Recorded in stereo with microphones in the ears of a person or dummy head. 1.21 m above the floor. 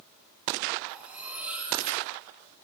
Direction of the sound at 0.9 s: 5° right (ahead or behind).